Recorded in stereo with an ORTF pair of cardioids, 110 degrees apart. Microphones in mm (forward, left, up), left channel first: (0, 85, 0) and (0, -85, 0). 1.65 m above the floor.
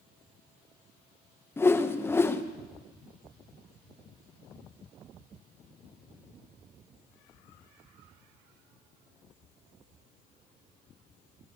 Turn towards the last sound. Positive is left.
turn(degrees=15)